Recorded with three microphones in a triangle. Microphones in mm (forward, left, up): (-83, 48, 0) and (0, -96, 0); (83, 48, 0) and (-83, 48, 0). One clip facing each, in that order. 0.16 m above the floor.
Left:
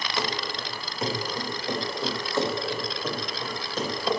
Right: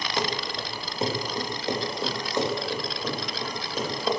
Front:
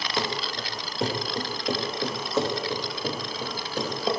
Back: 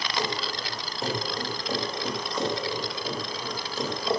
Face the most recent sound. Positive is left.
turn(degrees=25)